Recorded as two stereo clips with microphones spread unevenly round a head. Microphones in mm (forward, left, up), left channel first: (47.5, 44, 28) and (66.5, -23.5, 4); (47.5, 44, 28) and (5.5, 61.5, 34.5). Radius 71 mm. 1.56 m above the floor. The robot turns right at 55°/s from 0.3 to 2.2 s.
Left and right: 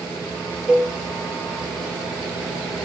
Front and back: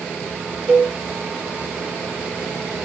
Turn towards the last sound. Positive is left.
turn(degrees=-105)